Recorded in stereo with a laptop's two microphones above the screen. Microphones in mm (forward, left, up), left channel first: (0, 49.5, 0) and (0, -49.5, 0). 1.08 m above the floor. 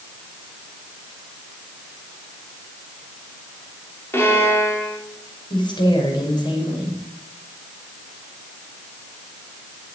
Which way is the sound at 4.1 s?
25° left (ahead or behind).